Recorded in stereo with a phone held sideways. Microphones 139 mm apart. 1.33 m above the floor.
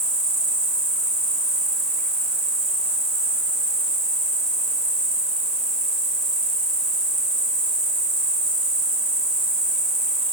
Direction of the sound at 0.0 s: 20° right (ahead or behind).